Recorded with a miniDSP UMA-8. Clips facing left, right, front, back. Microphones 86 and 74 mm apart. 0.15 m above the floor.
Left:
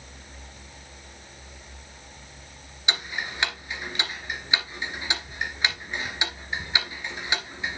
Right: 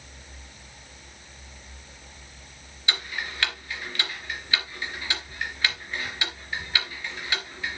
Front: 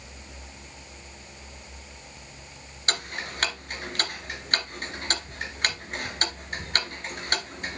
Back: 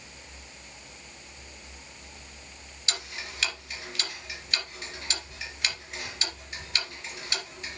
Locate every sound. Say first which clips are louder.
2.9 s ticking: left 1 dB, front 6 dB; 25° left, 1.9 m